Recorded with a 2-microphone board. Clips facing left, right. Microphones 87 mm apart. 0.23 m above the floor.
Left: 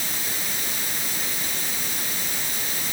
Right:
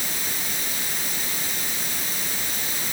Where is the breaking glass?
I don't hear breaking glass.